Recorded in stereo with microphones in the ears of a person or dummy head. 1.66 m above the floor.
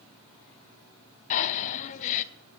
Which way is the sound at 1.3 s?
40° left (ahead or behind).